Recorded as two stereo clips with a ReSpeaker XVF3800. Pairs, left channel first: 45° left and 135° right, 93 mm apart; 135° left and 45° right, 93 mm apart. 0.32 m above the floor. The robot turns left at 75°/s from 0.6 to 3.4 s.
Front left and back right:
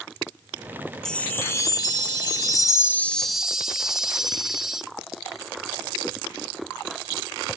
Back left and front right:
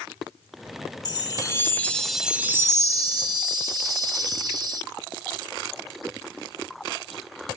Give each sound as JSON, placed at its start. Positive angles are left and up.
{"t": 1.1, "sound": "a chime", "azimuth_deg": 125, "distance_m": 0.7}